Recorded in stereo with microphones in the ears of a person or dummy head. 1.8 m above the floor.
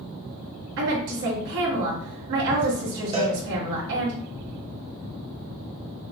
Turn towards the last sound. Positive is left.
turn(degrees=-20)  # may be behind; listen again after turning